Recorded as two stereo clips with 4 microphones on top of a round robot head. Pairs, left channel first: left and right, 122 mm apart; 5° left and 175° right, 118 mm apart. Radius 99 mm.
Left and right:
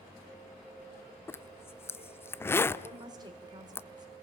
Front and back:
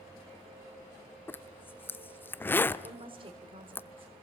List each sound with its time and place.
1.3 s a zipper: 55° left, 0.8 m
2.8 s a woman speaking: 140° right, 2 m